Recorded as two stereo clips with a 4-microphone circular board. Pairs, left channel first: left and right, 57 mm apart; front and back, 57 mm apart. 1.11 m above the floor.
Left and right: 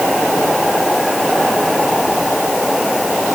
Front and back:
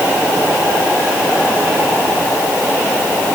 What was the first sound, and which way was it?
Only background noise.